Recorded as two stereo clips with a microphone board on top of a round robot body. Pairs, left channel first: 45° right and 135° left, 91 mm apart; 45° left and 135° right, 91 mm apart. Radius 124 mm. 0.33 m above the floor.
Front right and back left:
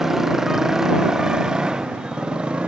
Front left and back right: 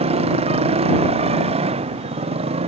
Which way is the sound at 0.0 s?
140° right.